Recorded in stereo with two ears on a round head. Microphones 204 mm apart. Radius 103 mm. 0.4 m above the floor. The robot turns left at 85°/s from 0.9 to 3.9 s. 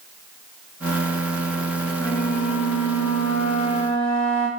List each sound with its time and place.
2.0 s a flute: 170° left, 2.5 m; by 4.5 s 5° left, 2.5 m